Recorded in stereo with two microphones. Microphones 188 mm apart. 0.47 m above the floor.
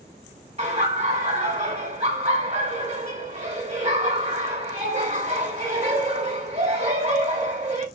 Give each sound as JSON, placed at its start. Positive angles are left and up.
{"t": 0.6, "sound": "laughter", "side_deg": -35, "distance_m": 1.7}